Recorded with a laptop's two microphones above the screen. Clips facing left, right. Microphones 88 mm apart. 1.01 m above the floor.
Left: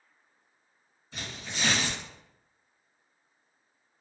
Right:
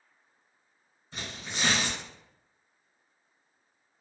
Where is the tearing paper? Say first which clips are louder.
Even; 35° right (ahead or behind), 1.7 m.